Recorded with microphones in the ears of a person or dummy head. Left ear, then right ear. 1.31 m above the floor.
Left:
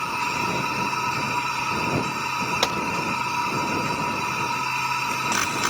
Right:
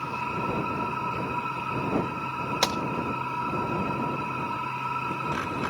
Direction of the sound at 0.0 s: 80° left.